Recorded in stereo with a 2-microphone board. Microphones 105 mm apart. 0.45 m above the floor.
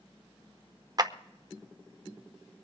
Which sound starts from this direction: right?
A clap, at 1.0 s.